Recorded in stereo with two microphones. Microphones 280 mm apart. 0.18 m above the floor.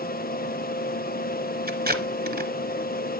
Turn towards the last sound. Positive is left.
turn(degrees=-35)  # may be behind; listen again after turning